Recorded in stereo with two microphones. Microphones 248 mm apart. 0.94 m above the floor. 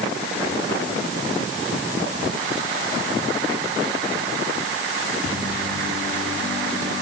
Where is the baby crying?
No baby crying in this recording.